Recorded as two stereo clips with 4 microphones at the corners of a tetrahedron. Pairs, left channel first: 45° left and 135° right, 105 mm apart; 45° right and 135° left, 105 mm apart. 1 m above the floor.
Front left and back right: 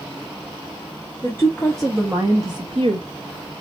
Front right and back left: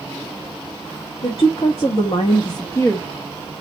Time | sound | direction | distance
1.2 | a woman speaking | 20° right | 1.5 m